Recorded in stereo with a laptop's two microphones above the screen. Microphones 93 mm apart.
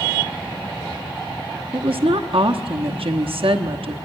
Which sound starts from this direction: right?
A woman speaking, at 1.7 s.